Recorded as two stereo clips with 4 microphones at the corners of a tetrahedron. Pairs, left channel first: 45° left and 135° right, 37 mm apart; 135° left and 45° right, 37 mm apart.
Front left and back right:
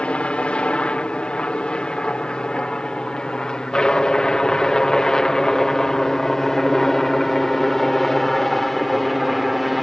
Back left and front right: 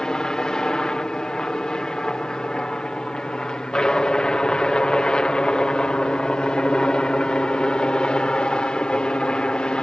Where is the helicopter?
75° left; by 9.8 s 140° left.